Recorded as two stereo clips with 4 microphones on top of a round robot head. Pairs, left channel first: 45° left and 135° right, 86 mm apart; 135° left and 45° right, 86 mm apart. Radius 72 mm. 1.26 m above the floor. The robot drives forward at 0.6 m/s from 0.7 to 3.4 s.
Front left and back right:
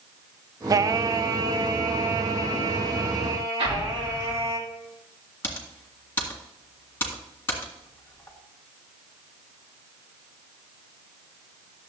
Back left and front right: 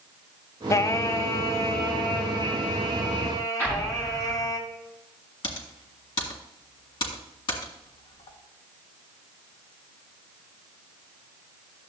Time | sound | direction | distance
0.7 | singing | 175° right | 0.6 m
3.6 | an explosion | 150° right | 3 m
5.4 | typing on a keyboard | 110° left | 1.9 m